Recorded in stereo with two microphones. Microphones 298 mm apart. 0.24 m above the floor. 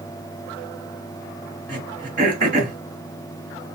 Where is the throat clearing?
30° right (ahead or behind), 1.3 m.